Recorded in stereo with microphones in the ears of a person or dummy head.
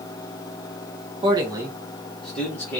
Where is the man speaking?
25° right (ahead or behind), 0.6 m; by 2.8 s 10° left (ahead or behind), 1.2 m.